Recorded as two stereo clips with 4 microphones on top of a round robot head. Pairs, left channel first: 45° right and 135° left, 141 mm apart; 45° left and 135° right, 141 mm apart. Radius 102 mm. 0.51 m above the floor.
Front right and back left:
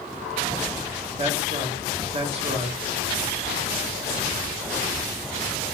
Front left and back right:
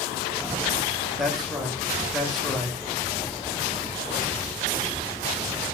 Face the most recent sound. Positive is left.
turn(degrees=135)